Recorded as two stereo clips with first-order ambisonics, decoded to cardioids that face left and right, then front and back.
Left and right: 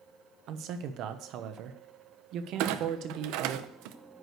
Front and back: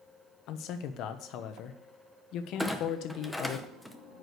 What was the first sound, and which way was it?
A man speaking, 45° right.